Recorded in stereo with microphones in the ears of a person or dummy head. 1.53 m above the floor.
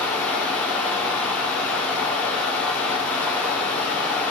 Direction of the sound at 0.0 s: Centre (ahead or behind).